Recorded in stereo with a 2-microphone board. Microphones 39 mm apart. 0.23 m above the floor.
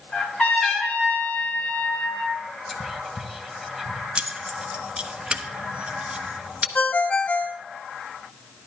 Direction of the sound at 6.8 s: 45° left (ahead or behind).